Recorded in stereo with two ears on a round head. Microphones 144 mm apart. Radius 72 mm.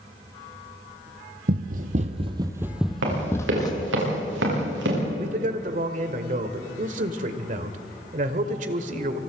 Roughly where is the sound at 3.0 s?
Right.